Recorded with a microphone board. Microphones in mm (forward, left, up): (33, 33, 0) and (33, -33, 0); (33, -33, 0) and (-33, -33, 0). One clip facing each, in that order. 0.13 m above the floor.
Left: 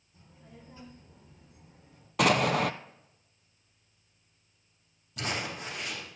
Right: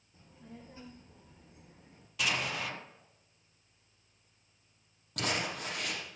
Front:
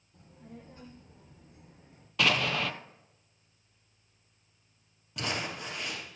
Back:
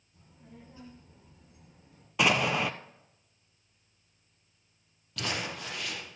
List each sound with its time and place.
0.1 s a child speaking: 30° right, 3 m; by 2.1 s 50° right, 1.8 m
2.2 s an explosion: 110° left, 0.6 m
5.2 s crumpling: 70° right, 4.5 m